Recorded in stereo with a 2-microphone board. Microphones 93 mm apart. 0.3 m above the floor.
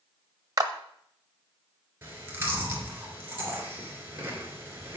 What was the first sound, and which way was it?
A clap, 40° right (ahead or behind).